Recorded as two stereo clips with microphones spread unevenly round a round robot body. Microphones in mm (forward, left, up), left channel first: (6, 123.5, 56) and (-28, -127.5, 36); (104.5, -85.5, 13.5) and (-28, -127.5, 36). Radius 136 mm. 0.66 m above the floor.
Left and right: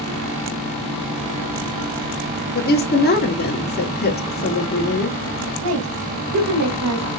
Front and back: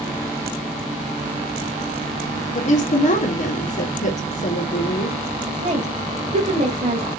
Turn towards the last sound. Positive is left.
turn(degrees=-125)